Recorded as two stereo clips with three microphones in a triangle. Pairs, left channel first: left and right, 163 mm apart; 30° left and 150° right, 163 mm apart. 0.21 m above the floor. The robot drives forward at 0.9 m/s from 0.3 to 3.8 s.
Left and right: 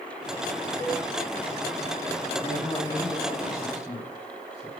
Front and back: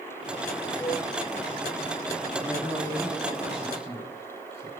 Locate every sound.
0.8 s a cowbell: 115° left, 1.4 m; by 1.0 s 135° left, 1.4 m
2.4 s a man speaking: 150° left, 4.5 m; by 4.7 s 160° left, 5.5 m